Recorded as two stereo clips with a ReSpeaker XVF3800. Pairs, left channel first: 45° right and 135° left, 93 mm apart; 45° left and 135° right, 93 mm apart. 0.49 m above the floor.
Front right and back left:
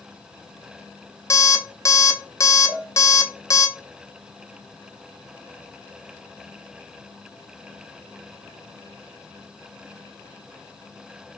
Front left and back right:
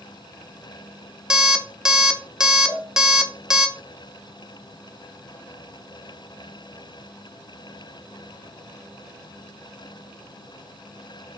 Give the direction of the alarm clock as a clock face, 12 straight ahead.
2 o'clock.